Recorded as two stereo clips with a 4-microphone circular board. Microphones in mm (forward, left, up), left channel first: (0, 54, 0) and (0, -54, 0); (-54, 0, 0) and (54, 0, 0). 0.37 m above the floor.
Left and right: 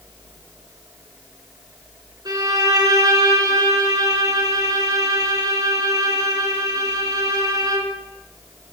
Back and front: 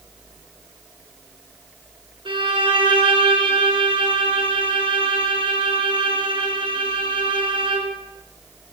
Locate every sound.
2.2 s a violin: 35° right, 2.5 m